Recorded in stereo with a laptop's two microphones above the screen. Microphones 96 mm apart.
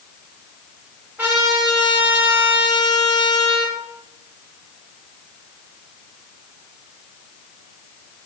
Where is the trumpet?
20° right (ahead or behind), 4 m.